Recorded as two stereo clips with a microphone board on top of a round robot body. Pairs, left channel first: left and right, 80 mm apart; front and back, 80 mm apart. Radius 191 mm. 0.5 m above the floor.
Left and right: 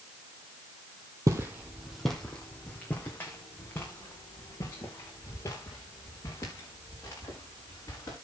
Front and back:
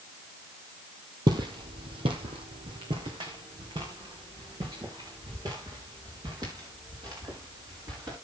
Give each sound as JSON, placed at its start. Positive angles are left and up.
{"t": 1.3, "sound": "footsteps", "azimuth_deg": -140, "distance_m": 1.0}